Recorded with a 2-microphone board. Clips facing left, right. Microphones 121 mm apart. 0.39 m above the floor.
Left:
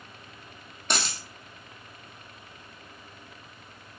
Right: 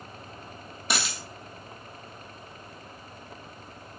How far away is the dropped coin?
About 1.2 m.